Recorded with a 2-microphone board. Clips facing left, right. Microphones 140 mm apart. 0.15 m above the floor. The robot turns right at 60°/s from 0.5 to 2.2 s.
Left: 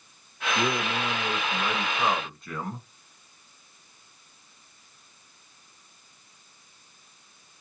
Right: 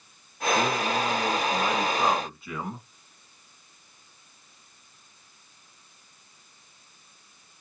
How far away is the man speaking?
About 1.1 m.